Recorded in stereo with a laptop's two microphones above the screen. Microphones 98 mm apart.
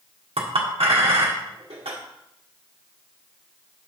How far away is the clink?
About 1.5 m.